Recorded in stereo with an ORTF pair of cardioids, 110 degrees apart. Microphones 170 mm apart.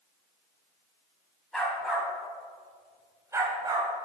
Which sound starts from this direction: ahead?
A dog barking, at 1.5 s.